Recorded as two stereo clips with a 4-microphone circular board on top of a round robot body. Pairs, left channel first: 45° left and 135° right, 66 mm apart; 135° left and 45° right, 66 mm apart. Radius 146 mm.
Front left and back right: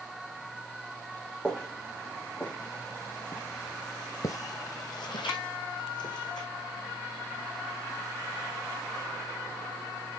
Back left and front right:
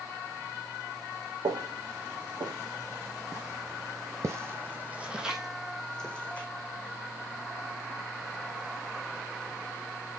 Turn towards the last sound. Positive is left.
turn(degrees=65)